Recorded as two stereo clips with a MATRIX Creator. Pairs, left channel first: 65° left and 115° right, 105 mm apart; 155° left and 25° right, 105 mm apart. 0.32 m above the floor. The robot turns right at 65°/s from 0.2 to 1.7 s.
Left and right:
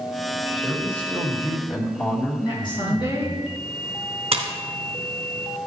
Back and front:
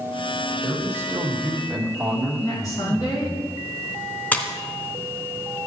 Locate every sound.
0.6 s a man speaking: 5° right, 1.7 m; by 3.4 s 65° left, 1.7 m
2.4 s a woman speaking: 105° left, 3.5 m
4.3 s a splash: 130° right, 1.2 m